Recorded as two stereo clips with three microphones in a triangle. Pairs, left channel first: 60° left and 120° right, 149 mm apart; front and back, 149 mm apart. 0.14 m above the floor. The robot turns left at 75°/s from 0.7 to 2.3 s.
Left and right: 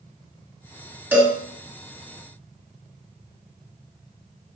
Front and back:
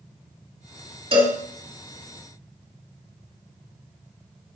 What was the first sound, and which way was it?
A cowbell, 170° left.